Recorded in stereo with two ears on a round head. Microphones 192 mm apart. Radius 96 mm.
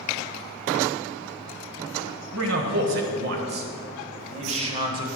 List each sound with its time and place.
2.3 s a man speaking: 65° right (ahead or behind), 2.0 m; by 5.1 s 25° right (ahead or behind), 1.5 m